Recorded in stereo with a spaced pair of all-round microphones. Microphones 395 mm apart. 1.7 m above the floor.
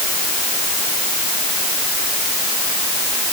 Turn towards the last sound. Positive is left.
No sound to turn to.